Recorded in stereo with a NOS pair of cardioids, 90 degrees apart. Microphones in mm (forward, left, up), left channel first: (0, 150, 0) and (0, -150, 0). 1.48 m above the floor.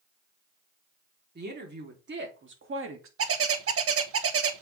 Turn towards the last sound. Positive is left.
turn(degrees=-50)